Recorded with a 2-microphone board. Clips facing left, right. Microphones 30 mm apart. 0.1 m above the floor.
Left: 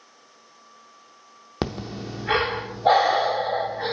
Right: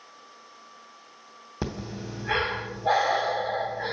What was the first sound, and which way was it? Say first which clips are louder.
Breathing: left 4 dB; 75° left (ahead or behind).